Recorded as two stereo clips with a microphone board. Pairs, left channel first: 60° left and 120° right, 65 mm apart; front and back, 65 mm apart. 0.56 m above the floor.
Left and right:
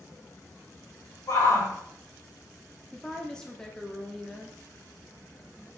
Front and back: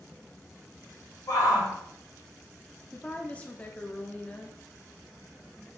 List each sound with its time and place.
1.3 s a shout: 25° left, 3 m
2.9 s a woman speaking: 5° left, 0.7 m